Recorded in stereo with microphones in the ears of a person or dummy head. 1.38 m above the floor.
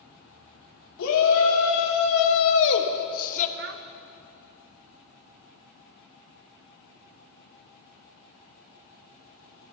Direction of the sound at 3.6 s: 50° right (ahead or behind).